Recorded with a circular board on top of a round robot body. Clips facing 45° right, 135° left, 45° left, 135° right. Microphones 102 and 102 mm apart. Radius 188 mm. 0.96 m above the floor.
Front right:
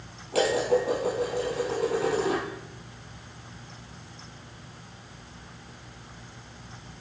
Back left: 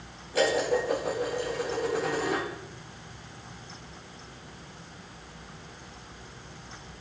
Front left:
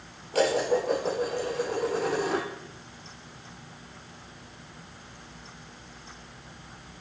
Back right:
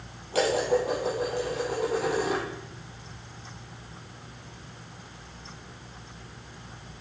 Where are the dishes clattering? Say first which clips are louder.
Front right 2 dB, even; 55° right, 7.5 m.